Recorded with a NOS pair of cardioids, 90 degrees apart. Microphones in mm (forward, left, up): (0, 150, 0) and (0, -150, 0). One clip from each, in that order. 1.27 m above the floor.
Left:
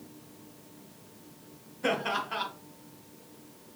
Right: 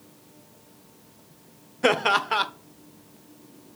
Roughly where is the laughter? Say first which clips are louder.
Right 9 dB; ahead right.